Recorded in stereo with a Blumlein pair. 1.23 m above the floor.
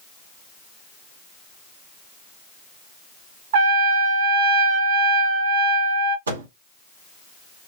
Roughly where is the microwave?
Right.